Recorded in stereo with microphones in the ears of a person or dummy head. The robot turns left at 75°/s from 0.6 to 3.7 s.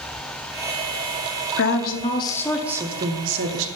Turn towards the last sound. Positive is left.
turn(degrees=-85)